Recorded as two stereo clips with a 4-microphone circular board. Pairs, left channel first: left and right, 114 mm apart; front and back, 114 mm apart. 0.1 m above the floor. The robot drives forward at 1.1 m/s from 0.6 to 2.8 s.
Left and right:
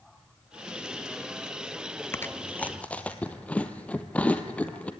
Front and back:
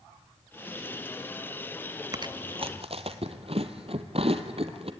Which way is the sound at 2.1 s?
145° left.